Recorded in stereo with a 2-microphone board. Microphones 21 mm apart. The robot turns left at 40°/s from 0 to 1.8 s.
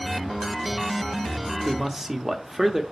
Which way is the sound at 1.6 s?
20° right (ahead or behind).